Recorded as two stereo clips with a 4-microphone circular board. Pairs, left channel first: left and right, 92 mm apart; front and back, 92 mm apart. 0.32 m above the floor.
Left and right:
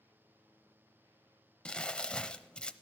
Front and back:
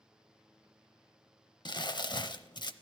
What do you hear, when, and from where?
1.6 s crumpling: 10° left, 0.6 m